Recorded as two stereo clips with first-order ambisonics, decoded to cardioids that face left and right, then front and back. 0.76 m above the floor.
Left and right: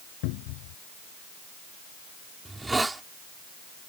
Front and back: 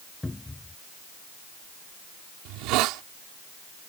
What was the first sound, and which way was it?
A cupboard door, 80° left.